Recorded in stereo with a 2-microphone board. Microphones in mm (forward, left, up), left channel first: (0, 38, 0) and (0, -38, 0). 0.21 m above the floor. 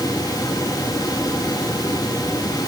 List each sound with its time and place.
Only background noise.